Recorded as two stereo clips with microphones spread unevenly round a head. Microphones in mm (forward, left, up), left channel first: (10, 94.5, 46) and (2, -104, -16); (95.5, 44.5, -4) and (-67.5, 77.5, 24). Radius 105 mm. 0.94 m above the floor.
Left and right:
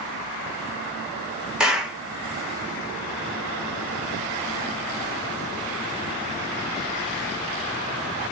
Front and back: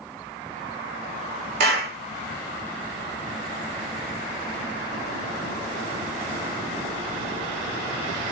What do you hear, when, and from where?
1.6 s a clap: 160° right, 0.6 m